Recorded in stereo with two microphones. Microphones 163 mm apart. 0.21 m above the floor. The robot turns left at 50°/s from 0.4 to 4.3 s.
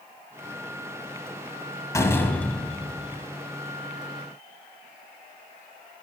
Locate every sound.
1.9 s a door slam: 20° left (ahead or behind), 1.2 m; by 3.2 s 10° right (ahead or behind), 1.2 m